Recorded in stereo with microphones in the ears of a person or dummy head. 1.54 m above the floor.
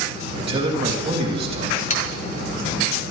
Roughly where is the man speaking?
Right.